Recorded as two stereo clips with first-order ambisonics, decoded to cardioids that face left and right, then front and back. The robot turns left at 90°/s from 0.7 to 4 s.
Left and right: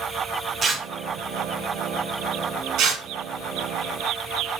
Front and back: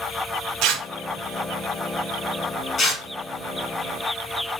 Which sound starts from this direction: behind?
Tearing paper, at 0.6 s.